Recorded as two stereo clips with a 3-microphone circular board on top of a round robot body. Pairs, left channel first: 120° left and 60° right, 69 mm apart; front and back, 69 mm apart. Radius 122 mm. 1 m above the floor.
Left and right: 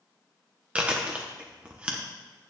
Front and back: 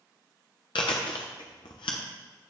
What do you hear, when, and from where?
0.8 s chewing: 15° left, 0.7 m